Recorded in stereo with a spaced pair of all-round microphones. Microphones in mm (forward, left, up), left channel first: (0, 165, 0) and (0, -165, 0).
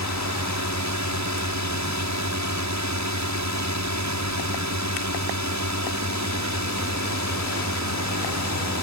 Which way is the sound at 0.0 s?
55° right (ahead or behind).